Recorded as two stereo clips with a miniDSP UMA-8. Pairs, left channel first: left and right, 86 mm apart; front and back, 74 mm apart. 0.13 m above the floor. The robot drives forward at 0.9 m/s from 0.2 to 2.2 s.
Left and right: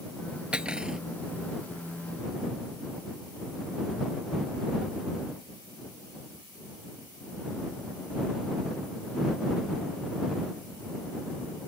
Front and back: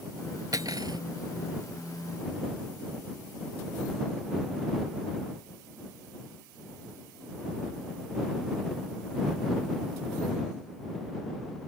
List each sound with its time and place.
0.5 s cutlery clinking: 165° right; by 1.0 s 170° right